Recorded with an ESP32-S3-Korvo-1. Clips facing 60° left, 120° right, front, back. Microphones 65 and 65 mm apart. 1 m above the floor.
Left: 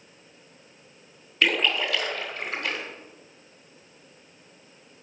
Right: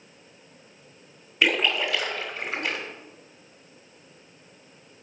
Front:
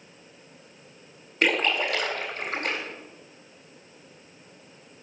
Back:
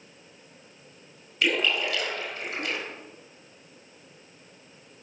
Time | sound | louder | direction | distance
1.4 | a splash | right 1 dB, front 2 dB | 45° right | 2 m